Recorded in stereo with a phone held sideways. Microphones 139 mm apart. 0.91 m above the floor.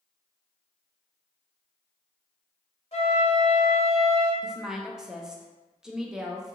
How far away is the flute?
About 1.5 m.